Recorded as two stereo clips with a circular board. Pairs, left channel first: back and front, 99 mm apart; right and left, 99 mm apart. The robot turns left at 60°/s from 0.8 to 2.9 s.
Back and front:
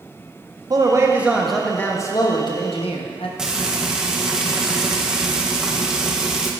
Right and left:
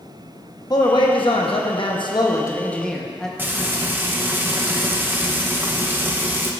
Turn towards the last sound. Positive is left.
turn(degrees=70)